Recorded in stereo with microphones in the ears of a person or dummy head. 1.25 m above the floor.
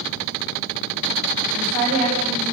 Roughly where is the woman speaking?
Right.